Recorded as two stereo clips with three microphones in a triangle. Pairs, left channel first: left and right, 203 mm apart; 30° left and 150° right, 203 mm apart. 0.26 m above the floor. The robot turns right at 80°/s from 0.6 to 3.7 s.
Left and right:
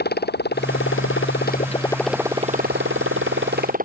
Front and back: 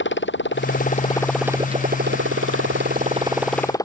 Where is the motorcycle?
55° left; by 3.9 s 45° right.